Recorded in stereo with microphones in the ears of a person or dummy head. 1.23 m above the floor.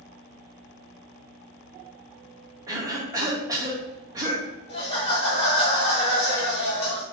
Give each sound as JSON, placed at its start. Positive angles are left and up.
{"t": 2.7, "sound": "a cough", "side_deg": -20, "distance_m": 1.4}
{"t": 4.7, "sound": "laughter", "side_deg": 35, "distance_m": 1.7}